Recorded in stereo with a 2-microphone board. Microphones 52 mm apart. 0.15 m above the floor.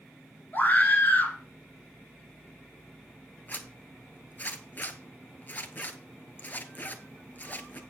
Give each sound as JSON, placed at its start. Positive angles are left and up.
{"t": 0.5, "sound": "a scream", "side_deg": 40, "distance_m": 1.9}
{"t": 3.5, "sound": "a zipper", "side_deg": 35, "distance_m": 0.8}